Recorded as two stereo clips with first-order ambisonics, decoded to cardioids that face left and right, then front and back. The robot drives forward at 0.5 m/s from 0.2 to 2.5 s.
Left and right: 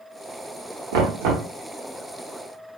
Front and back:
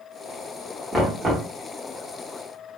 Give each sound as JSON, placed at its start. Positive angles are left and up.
{"t": 0.9, "sound": "knocking", "azimuth_deg": -90, "distance_m": 0.8}